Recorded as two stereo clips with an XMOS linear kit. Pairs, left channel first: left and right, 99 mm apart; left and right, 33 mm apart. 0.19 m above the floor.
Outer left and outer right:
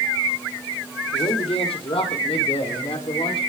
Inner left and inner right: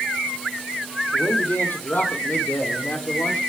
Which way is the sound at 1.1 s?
75° left (ahead or behind).